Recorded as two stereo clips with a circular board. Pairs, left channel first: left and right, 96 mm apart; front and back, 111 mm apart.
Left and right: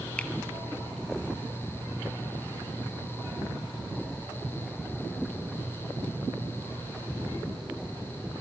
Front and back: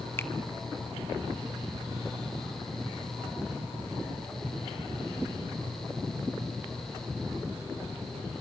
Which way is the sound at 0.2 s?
30° left.